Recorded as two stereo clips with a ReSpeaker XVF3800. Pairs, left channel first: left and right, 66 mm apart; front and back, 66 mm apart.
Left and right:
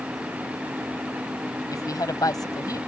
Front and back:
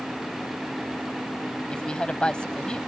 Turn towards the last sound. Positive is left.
turn(degrees=75)